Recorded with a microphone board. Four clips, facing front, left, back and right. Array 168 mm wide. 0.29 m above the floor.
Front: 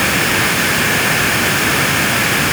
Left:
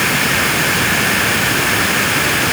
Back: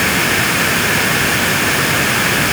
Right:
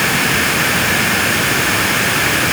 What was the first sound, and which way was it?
Only background noise.